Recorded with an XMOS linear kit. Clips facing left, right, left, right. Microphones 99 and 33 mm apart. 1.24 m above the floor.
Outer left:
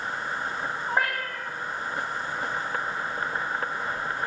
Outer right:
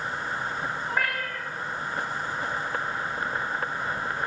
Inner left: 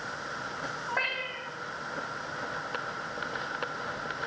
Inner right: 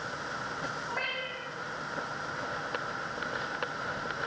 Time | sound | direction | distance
0.9 | a cat meowing | 25° left (ahead or behind) | 2.5 m